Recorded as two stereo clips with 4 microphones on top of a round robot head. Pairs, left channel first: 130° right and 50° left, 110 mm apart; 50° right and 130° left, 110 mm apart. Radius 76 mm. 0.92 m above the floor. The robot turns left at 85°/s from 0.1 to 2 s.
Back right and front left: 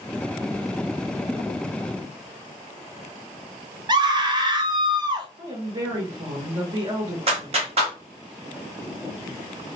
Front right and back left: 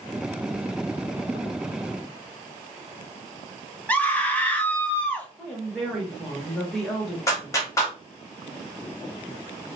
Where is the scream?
25° left, 0.8 m.